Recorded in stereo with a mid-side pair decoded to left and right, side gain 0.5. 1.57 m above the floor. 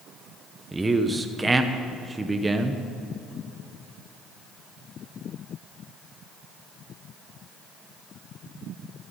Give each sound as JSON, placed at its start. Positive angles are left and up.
{"t": 0.7, "sound": "a man speaking", "azimuth_deg": -15, "distance_m": 1.1}